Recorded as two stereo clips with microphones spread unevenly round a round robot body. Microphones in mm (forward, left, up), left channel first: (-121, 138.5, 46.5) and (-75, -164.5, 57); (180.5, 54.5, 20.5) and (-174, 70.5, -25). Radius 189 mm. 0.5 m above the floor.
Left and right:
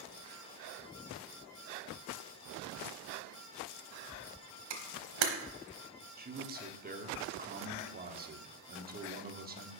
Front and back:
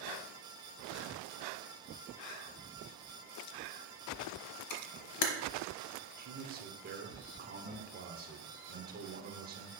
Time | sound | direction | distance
4.7 | a camera shutter | 50° right | 1.1 m
6.2 | a man speaking | 135° right | 1.1 m